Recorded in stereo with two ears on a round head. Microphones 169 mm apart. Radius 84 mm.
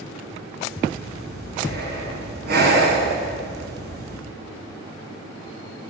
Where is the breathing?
55° right (ahead or behind), 7 m.